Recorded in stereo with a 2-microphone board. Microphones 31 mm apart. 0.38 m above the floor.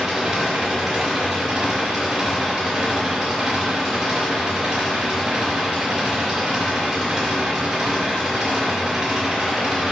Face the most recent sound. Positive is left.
turn(degrees=-20)  # may be behind; listen again after turning